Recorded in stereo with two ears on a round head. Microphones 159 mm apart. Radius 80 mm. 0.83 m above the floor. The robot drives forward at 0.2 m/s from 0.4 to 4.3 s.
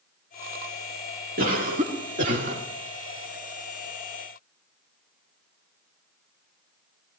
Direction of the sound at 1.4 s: 50° right (ahead or behind).